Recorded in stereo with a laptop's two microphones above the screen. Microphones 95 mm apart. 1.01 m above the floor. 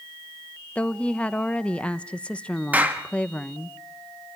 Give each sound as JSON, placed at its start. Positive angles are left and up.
{"t": 0.8, "sound": "a woman speaking", "side_deg": 10, "distance_m": 1.0}
{"t": 2.7, "sound": "a clap", "side_deg": -15, "distance_m": 1.2}